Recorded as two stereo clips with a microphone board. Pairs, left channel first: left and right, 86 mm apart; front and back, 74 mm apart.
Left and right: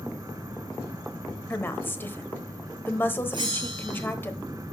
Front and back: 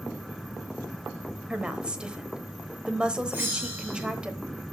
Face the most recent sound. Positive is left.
turn(degrees=-120)